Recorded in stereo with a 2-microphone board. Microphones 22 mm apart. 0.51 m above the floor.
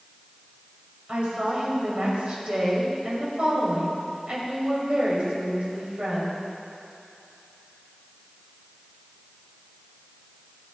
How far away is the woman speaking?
About 3 m.